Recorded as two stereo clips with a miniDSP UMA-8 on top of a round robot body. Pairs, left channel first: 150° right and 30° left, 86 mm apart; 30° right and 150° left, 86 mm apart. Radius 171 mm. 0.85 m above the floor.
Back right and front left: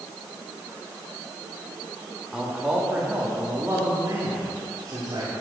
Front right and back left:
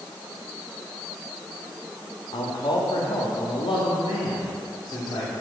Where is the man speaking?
55° right, 1.8 m; by 5.3 s 20° right, 3 m.